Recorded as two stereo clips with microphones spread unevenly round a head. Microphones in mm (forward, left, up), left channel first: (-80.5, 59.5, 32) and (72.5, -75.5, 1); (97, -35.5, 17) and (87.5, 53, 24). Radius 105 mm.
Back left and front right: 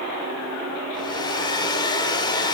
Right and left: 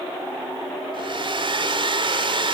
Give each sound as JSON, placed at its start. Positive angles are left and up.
{"t": 0.9, "sound": "a hair dryer", "azimuth_deg": 70, "distance_m": 1.9}